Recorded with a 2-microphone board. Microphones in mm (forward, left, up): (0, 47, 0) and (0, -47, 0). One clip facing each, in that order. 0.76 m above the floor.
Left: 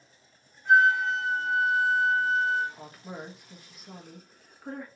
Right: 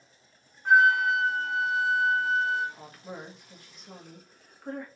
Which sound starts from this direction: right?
A flute, at 0.7 s.